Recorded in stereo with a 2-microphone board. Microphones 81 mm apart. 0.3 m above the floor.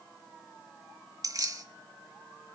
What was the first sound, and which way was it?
Keys jangling, 45° right (ahead or behind).